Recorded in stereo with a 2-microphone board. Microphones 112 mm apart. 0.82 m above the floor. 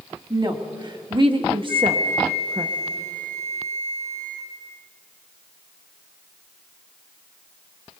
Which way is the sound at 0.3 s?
40° right (ahead or behind).